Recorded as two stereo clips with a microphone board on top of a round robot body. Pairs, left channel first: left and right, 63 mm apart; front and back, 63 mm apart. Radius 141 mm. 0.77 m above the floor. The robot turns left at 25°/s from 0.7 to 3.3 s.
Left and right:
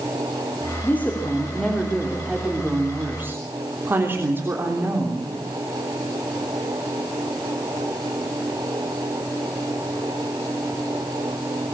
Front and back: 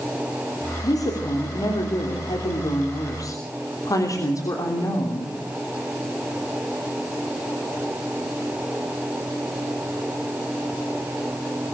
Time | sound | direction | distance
0.8 | a woman speaking | 30° left | 3.5 m